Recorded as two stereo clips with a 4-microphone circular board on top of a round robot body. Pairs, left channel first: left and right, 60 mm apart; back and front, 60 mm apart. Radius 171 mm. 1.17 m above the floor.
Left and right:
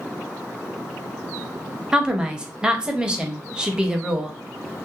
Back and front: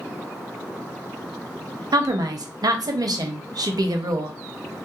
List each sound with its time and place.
1.9 s a woman speaking: 15° right, 0.6 m